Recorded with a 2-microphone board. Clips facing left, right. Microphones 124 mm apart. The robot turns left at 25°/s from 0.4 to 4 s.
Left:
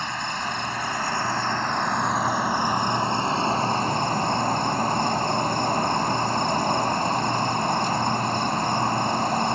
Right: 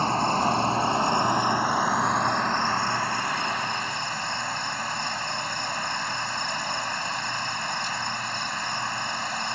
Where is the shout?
I don't hear a shout.